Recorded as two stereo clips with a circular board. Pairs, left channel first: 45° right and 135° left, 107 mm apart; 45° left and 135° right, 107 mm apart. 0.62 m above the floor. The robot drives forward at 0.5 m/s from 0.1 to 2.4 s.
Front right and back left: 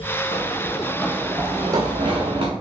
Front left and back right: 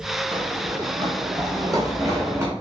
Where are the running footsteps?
75° right, 1.1 m; by 2.5 s 160° left, 1.6 m.